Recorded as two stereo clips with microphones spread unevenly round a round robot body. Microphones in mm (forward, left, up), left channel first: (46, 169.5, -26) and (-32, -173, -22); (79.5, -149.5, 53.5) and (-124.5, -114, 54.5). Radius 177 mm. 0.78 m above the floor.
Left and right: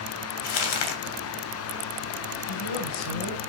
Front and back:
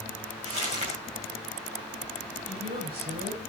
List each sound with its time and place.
0.4 s crumpling: 100° left, 3 m
2.5 s a woman speaking: 105° left, 4.5 m